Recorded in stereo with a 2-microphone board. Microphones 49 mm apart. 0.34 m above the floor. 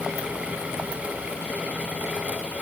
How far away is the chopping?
No chopping in this recording.